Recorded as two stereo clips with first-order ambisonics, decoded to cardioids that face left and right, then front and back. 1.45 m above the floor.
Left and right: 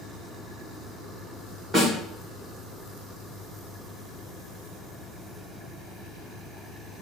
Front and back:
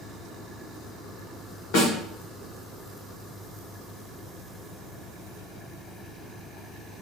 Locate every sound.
1.7 s a snare drum: 5° right, 2 m